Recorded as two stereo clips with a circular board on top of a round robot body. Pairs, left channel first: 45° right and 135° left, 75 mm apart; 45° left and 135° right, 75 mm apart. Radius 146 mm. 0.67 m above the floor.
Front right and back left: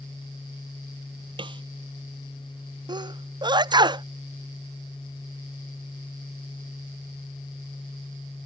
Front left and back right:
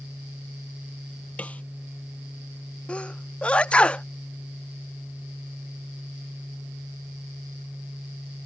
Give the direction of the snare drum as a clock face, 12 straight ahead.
8 o'clock.